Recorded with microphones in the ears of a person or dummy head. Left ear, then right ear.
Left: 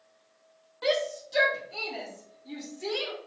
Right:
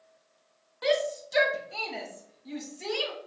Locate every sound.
0.8 s a shout: 5° right (ahead or behind), 0.7 m; by 3.1 s 55° right (ahead or behind), 1.8 m